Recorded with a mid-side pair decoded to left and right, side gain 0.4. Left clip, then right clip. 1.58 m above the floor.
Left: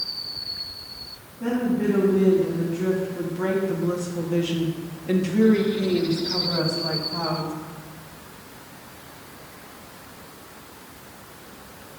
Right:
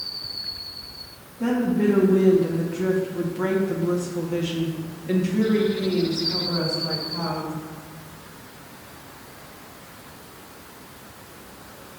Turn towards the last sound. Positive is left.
turn(degrees=45)